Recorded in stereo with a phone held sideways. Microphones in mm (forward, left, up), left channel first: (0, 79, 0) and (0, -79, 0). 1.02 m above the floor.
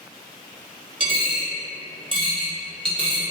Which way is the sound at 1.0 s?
35° right (ahead or behind).